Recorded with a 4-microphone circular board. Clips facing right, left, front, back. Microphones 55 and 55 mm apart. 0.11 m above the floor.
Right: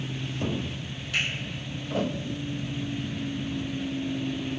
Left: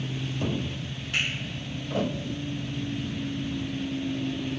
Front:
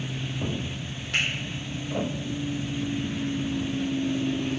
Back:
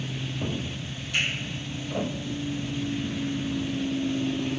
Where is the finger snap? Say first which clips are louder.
Even, front 1 dB; 30° left, 4 m.